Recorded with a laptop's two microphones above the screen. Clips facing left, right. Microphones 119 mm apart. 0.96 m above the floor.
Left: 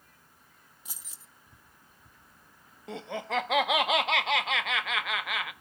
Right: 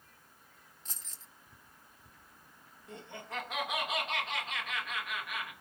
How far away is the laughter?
About 0.9 m.